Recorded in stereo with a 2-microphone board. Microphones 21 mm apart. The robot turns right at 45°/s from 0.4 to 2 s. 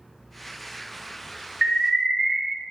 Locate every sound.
1.6 s an alarm: 5° right (ahead or behind), 0.7 m; by 2.4 s 15° right (ahead or behind), 0.7 m